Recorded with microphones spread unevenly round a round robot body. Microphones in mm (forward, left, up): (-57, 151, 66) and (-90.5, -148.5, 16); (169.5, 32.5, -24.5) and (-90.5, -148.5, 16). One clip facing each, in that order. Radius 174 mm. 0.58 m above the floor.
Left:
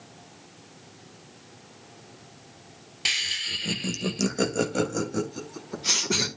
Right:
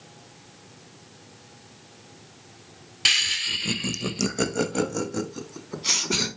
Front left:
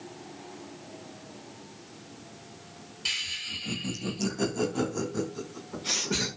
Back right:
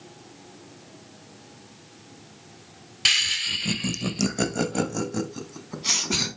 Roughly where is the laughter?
Behind right.